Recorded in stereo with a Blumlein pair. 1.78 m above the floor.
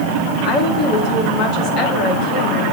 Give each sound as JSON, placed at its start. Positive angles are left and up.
{"t": 0.4, "sound": "a woman speaking", "azimuth_deg": 40, "distance_m": 2.5}